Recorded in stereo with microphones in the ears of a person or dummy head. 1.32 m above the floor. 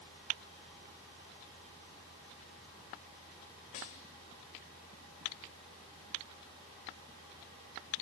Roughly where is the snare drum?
Left.